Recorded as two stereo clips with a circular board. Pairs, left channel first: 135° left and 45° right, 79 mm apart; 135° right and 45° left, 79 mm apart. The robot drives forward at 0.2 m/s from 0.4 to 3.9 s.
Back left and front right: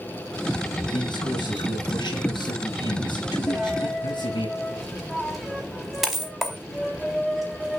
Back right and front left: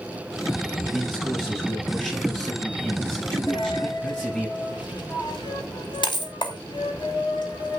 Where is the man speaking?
150° left, 5 m.